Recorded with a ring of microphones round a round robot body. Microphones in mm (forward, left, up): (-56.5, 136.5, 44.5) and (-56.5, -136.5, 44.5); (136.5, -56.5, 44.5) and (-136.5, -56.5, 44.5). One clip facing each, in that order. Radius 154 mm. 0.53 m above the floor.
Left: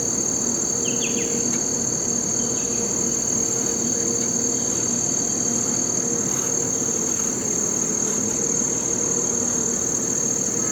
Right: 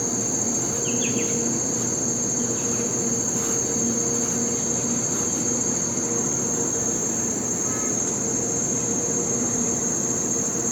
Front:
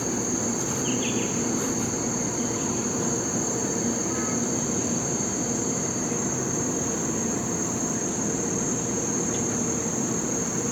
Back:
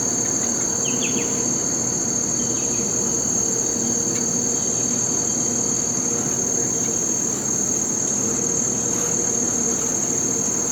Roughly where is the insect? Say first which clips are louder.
Even, even; behind.